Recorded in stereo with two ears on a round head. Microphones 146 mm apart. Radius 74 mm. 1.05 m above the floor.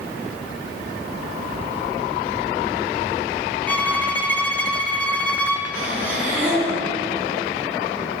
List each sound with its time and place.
3.7 s a violin: 10° left (ahead or behind), 0.6 m
5.7 s breathing: 10° right (ahead or behind), 3 m